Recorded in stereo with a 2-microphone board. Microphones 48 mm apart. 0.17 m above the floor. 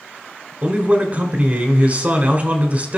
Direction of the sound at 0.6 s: 30° right (ahead or behind).